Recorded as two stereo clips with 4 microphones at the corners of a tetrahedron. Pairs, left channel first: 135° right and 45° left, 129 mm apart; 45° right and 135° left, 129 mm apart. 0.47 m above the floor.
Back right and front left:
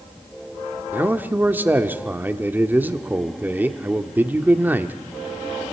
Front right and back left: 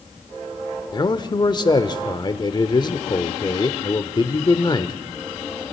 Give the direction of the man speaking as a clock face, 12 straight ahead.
1 o'clock.